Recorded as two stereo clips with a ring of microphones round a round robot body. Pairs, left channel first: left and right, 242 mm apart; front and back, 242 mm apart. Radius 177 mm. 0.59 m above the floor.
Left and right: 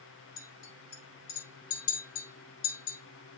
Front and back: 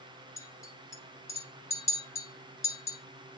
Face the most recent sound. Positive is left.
turn(degrees=80)